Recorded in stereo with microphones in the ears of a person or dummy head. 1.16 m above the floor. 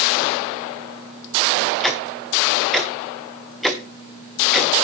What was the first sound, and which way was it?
Ticking, 5° left (ahead or behind).